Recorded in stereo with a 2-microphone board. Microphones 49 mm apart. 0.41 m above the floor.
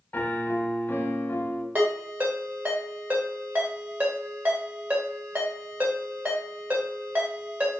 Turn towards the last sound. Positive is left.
turn(degrees=-35)  # may be behind; listen again after turning